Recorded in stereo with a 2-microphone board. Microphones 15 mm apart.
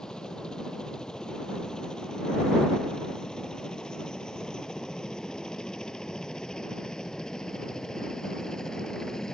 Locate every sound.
0.0 s a helicopter: 70° left (ahead or behind); by 9.3 s 45° left (ahead or behind)